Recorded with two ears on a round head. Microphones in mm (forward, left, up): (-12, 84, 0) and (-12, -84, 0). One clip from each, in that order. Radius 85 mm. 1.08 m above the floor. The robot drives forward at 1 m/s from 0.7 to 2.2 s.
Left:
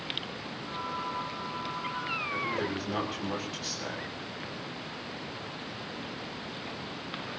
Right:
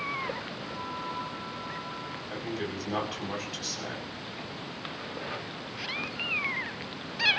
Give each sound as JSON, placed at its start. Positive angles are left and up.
{"t": 2.3, "sound": "a man speaking", "side_deg": -15, "distance_m": 7.5}